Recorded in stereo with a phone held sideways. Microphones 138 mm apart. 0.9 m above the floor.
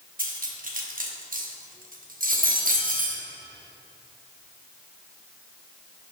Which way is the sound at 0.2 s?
85° right.